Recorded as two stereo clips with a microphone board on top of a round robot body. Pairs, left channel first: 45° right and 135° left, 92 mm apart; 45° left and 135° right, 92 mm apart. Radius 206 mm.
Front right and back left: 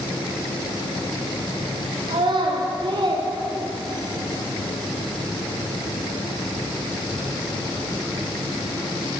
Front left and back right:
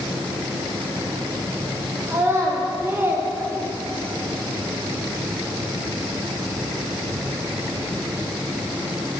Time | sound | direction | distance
2.1 | a child speaking | 160° left | 1.8 m